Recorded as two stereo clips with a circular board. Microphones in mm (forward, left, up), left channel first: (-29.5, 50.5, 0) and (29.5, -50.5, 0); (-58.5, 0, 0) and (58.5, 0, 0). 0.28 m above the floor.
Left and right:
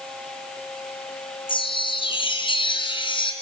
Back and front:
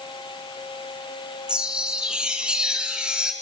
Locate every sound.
1.5 s a chime: 80° left, 3 m